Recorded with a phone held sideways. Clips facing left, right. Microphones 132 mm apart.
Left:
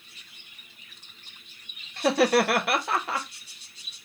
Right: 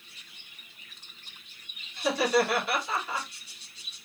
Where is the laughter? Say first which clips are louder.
Left 4 dB; 70° left (ahead or behind), 0.9 m.